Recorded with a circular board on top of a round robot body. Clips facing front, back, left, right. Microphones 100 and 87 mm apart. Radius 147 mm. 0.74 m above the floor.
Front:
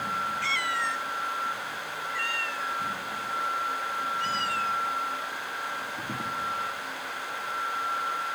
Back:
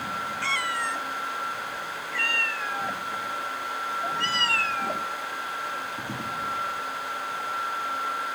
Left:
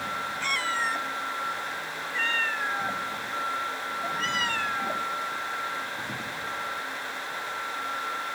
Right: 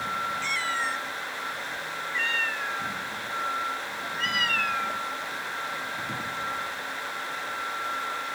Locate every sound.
0.4 s a cat meowing: 130° left; by 5.1 s 155° left